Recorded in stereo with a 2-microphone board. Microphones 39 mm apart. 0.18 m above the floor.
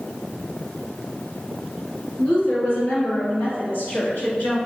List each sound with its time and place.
2.2 s a woman speaking: 45° left (ahead or behind), 1.8 m; by 4.6 s 55° left (ahead or behind), 1.9 m